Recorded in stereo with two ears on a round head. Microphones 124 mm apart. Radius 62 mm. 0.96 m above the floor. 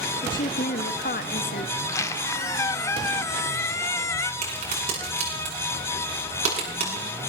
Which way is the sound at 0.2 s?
60° left (ahead or behind).